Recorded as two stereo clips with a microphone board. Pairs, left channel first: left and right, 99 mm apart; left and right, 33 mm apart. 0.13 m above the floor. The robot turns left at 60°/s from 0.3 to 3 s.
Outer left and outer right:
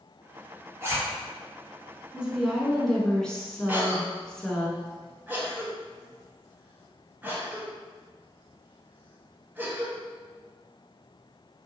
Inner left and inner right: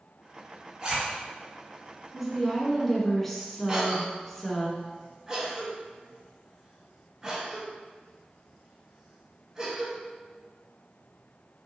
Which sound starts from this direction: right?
A zipper, at 0.8 s.